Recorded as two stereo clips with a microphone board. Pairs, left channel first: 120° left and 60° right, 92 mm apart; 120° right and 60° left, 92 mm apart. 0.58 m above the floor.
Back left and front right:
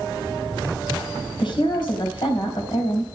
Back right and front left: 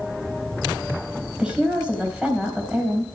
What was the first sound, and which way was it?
A woman speaking, 140° left.